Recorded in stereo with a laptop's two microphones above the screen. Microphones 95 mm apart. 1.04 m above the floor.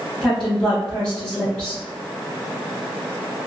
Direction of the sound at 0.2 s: 10° right (ahead or behind).